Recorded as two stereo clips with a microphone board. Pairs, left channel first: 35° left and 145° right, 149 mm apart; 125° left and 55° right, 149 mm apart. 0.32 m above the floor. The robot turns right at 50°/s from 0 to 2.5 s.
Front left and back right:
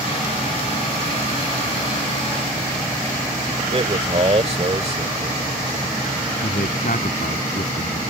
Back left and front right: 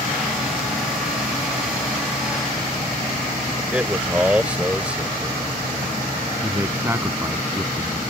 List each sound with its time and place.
3.7 s a man speaking: 135° right
6.4 s a man speaking: 20° left